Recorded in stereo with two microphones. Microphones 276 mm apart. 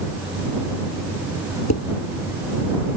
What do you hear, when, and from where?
1.7 s dishes clattering: 70° left (ahead or behind)